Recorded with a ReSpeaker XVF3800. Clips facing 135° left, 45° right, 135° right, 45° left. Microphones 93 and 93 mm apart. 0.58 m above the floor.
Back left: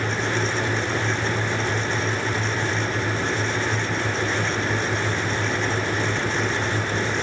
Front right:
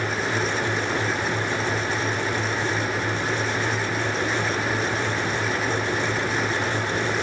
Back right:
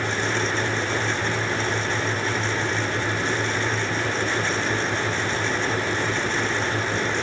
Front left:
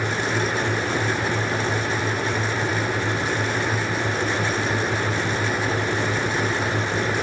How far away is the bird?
No bird in this recording.